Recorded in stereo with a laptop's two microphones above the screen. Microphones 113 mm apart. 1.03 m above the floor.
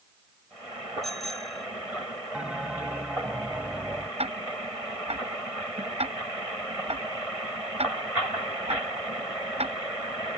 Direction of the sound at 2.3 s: 10° right (ahead or behind).